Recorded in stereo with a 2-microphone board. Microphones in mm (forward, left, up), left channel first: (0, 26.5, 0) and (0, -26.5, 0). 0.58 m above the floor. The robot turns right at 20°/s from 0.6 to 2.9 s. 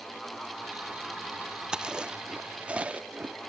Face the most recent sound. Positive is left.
turn(degrees=-25)  # may be behind; listen again after turning